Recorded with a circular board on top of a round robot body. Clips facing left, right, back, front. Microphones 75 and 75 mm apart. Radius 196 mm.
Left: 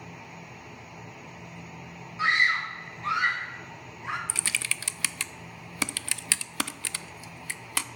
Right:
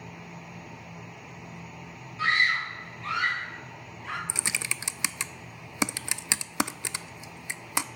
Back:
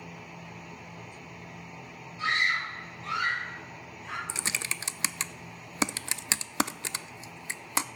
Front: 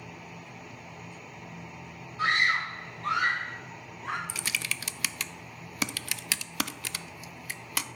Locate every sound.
2.2 s a scream: 20° left, 1.1 m
4.3 s typing on a keyboard: 145° right, 0.5 m